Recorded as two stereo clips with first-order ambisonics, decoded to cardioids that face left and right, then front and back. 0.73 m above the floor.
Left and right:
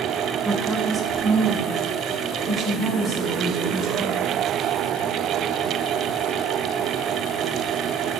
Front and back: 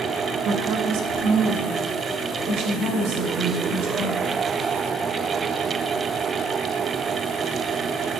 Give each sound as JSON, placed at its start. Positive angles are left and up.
{"t": 0.5, "sound": "a woman speaking", "azimuth_deg": 180, "distance_m": 0.7}